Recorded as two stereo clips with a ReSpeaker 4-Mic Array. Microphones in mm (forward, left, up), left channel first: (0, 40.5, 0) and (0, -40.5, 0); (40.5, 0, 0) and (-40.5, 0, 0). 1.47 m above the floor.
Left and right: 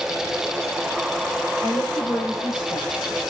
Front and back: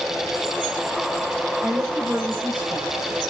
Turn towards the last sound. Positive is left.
turn(degrees=115)